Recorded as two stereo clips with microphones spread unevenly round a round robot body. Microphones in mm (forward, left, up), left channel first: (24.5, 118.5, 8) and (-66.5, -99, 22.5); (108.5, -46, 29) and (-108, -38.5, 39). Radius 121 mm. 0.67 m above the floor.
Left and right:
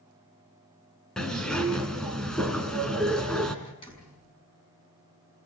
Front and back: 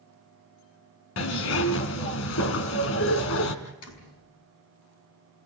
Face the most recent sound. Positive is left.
turn(degrees=-5)